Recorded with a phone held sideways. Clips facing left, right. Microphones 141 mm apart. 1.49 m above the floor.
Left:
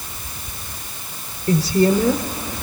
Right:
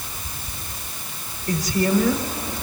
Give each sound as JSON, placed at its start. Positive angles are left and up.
{"t": 1.5, "sound": "a woman speaking", "side_deg": 30, "distance_m": 4.5}